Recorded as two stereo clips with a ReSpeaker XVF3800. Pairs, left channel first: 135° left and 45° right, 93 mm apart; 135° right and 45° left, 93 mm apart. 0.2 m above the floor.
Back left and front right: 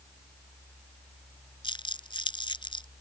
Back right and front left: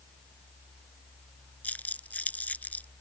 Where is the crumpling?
155° left.